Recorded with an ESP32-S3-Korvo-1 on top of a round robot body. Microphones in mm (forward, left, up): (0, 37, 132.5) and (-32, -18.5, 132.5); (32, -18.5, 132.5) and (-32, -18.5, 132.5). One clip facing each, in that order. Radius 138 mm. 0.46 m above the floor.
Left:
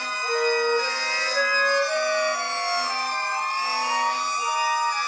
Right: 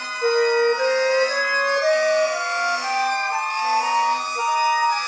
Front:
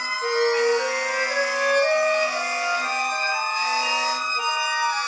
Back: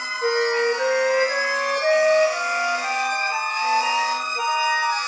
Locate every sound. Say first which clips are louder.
0.2 s a flute: right 6 dB, even; 125° right, 9 m